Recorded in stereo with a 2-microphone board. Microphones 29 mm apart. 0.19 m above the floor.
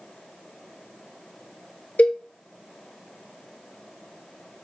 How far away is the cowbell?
About 0.6 m.